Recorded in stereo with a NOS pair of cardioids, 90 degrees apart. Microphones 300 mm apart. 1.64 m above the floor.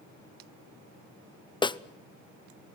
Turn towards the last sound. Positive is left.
turn(degrees=15)